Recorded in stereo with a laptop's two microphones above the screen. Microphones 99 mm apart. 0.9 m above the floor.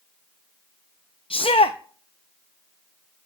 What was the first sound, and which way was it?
A shout, 65° left (ahead or behind).